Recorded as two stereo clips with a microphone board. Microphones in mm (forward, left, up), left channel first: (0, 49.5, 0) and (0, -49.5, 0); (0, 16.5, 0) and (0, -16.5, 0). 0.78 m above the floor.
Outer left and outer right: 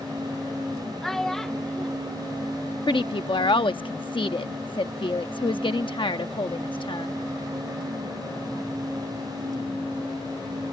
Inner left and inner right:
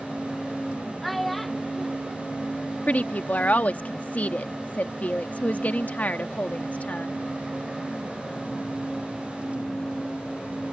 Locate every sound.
1.0 s a child speaking: 5° left (ahead or behind)
2.9 s a woman speaking: 55° left (ahead or behind)